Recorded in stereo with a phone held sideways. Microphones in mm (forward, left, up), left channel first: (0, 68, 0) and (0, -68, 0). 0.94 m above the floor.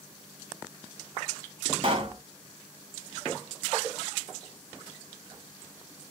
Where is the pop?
40° right (ahead or behind), 0.8 m.